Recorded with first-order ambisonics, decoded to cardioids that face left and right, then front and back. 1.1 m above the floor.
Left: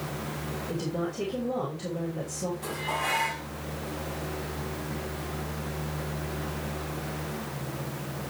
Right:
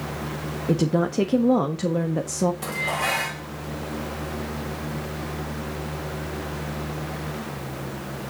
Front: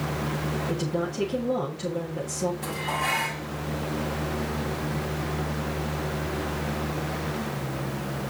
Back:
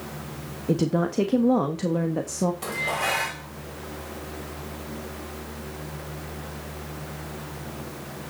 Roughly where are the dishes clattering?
Behind right.